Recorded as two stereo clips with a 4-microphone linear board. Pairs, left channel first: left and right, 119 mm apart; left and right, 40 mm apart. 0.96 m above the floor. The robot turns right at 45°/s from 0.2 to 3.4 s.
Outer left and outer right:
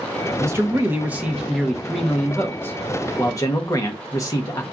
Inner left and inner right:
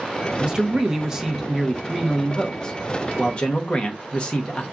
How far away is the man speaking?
About 0.8 m.